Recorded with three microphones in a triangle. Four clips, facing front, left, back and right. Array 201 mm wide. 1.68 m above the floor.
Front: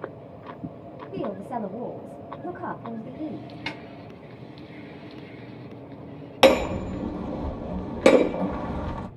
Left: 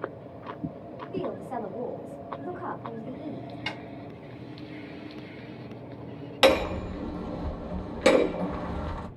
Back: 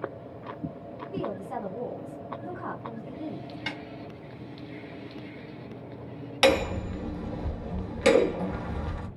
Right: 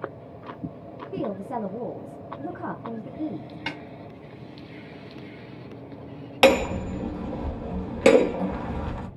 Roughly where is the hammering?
Ahead right.